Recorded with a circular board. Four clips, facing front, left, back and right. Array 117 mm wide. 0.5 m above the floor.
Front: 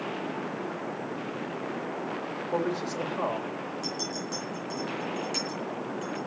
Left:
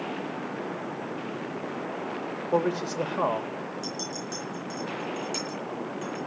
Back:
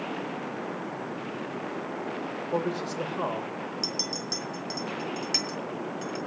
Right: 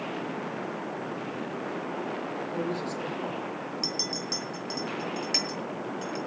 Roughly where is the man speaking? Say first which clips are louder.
Left 8 dB, even; left.